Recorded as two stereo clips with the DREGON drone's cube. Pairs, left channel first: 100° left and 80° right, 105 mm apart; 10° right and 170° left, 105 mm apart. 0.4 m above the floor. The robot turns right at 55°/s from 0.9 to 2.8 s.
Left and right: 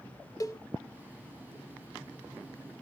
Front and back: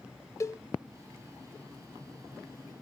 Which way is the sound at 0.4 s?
45° left.